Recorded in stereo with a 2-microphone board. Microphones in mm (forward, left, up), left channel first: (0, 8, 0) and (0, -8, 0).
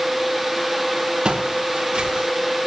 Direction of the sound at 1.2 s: 85° right.